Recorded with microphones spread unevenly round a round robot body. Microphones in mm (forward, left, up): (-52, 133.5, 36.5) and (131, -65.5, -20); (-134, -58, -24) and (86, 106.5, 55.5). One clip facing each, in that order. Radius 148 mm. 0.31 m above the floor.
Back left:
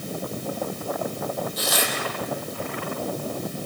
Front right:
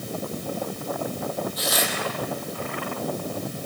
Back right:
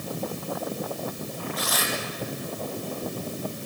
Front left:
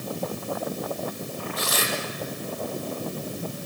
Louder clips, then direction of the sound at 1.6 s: Even, front left 3 dB; 100° left.